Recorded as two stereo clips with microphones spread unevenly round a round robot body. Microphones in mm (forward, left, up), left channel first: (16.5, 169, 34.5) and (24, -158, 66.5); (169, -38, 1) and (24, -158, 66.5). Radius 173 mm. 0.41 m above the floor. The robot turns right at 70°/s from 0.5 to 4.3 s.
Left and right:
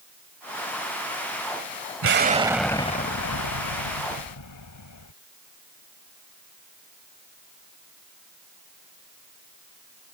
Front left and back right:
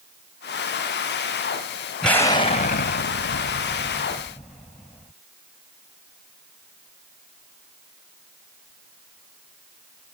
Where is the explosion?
40° right; by 5.1 s 120° left.